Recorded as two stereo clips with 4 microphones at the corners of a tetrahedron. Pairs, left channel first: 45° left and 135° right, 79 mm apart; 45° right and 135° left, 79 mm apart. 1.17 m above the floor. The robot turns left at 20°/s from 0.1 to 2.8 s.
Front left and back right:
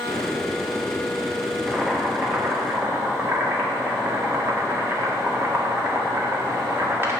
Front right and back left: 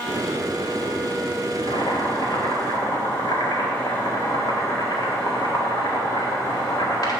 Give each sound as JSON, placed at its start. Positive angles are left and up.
{"t": 1.7, "sound": "boiling", "azimuth_deg": -55, "distance_m": 1.7}